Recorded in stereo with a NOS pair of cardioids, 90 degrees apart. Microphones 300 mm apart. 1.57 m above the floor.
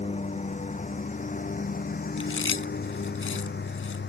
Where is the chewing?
45° left.